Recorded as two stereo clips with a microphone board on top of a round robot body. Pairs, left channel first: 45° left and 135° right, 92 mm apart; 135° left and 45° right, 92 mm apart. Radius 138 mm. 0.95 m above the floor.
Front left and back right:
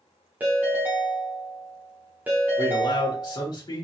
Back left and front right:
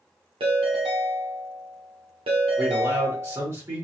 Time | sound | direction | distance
0.4 | a ringtone | 60° right | 1.1 m
2.6 | a man speaking | 10° left | 1.7 m